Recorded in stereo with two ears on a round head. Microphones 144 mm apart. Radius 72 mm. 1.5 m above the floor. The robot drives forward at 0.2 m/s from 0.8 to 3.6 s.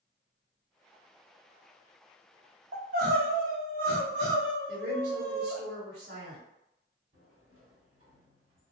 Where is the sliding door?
45° right (ahead or behind), 1.9 m.